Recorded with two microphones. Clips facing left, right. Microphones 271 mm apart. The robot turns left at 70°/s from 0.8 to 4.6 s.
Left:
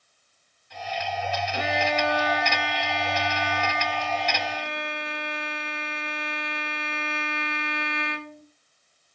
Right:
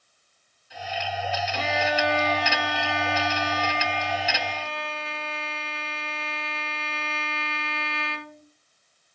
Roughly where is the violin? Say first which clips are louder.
Even; ahead.